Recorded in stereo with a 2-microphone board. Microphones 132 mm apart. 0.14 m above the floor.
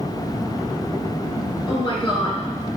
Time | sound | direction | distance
1.7 | a woman speaking | 40° left (ahead or behind) | 2 m